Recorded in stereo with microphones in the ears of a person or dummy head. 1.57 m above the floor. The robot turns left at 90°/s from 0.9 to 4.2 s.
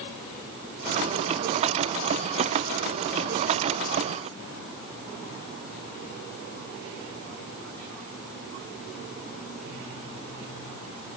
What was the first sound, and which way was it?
Only background noise.